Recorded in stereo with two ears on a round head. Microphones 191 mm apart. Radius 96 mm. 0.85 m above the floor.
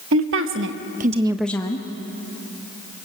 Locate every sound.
0.1 s a woman speaking: 65° right (ahead or behind), 1.8 m; by 1.9 s 25° left (ahead or behind), 1.2 m